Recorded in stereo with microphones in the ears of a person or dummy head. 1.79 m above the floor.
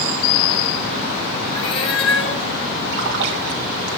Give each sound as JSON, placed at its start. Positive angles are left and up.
{"t": 1.6, "sound": "a cat meowing", "side_deg": 30, "distance_m": 3.0}
{"t": 2.9, "sound": "a splash", "side_deg": -60, "distance_m": 2.0}